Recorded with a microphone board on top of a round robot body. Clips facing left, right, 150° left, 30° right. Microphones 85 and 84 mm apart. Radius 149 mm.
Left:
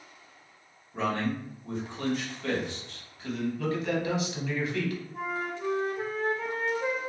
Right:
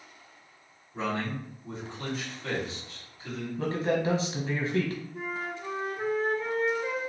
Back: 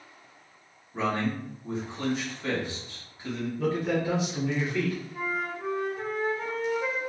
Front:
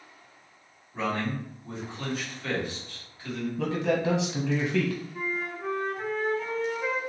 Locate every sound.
0.9 s a man speaking: 85° left, 1.9 m
3.6 s a man speaking: 30° right, 1.0 m
5.1 s a flute: 75° left, 1.2 m